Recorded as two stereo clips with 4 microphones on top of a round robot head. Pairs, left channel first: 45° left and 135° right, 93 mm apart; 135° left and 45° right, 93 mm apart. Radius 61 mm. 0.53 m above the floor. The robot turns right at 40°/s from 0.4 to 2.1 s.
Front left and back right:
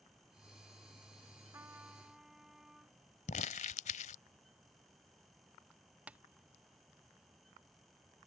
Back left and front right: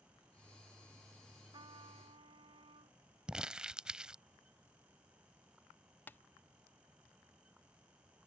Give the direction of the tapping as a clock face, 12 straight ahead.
6 o'clock.